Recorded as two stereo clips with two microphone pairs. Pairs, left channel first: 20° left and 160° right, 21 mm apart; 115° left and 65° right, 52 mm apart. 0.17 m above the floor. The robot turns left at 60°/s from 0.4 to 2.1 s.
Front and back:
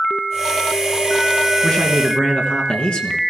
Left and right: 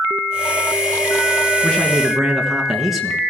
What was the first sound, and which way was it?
A man speaking, 45° left.